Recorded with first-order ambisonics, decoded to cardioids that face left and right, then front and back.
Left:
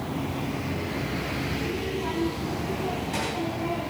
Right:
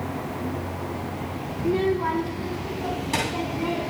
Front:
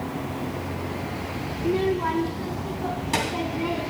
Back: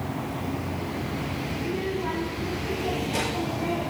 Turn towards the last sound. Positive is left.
turn(degrees=-35)